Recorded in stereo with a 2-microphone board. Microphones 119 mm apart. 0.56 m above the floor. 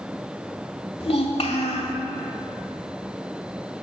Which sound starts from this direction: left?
A child speaking, at 1.0 s.